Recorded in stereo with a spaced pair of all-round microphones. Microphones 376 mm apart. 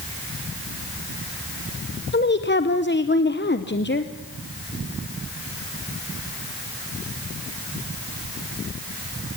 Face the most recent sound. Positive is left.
turn(degrees=30)  # may be behind; listen again after turning